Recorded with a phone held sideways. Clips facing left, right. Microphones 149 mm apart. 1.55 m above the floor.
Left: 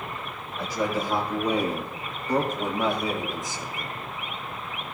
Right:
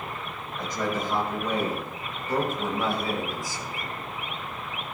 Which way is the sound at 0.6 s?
5° left (ahead or behind).